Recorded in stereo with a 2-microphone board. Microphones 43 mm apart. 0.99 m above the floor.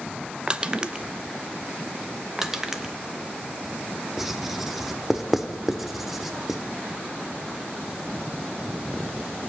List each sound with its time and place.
0.5 s crushing: 20° right (ahead or behind), 0.5 m
2.4 s crushing: 15° right (ahead or behind), 0.9 m
4.2 s writing: 5° right (ahead or behind), 0.9 m